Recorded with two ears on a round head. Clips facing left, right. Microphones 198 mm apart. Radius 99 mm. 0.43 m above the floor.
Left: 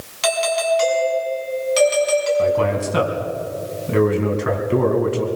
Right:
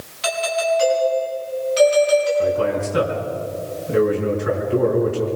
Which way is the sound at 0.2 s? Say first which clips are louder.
Left 2 dB; 65° left (ahead or behind).